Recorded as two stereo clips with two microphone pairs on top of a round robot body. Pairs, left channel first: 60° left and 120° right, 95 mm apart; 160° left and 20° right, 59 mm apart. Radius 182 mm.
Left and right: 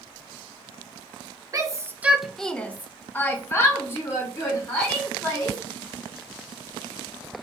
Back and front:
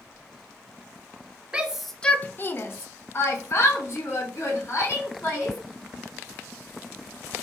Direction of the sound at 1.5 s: 100° right.